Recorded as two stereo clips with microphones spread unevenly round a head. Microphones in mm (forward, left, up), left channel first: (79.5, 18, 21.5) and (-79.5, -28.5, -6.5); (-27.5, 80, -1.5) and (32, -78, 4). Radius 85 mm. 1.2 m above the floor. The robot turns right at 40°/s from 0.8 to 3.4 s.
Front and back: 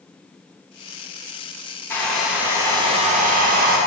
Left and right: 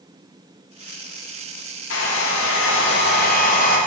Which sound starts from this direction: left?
A hair dryer, at 1.9 s.